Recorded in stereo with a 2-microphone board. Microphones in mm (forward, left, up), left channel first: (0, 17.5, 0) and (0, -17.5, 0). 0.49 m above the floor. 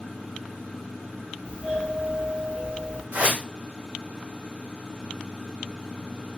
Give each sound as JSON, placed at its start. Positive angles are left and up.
{"t": 1.4, "sound": "a doorbell", "side_deg": -25, "distance_m": 3.5}
{"t": 3.1, "sound": "a whoosh", "side_deg": -55, "distance_m": 2.0}